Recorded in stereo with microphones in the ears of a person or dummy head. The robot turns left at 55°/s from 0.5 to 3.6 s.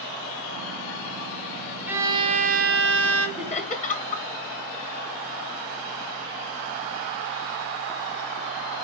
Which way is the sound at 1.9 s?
10° right.